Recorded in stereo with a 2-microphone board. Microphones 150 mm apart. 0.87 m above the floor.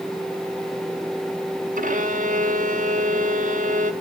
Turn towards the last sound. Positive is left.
turn(degrees=-60)  # may be behind; listen again after turning